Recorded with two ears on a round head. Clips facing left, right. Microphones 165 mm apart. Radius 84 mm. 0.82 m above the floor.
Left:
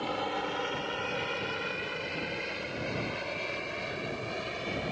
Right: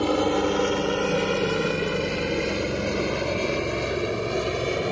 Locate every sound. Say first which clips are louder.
0.0 s a helicopter: right 12 dB; 60° right (ahead or behind)